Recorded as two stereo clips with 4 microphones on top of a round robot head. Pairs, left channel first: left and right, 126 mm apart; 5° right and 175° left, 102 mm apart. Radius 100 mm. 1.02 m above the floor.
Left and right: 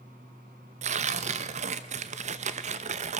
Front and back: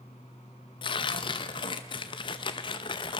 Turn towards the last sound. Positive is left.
turn(degrees=-55)